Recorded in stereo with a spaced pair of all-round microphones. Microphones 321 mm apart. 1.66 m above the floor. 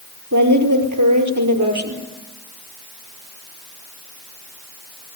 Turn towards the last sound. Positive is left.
turn(degrees=-85)